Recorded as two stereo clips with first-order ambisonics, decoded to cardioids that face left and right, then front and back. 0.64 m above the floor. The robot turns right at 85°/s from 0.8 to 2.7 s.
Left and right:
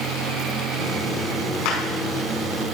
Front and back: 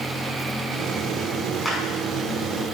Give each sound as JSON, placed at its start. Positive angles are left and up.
{"t": 1.6, "sound": "a clap", "azimuth_deg": 85, "distance_m": 5.0}